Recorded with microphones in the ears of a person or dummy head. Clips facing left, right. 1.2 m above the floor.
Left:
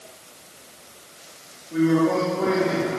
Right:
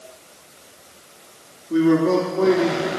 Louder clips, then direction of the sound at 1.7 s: Right 3 dB; 70° right (ahead or behind).